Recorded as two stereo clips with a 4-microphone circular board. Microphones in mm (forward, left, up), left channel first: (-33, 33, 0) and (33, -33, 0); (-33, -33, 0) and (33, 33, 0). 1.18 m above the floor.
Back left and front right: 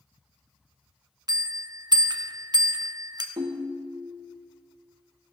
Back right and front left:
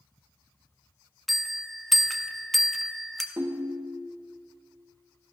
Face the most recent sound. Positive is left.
turn(degrees=-20)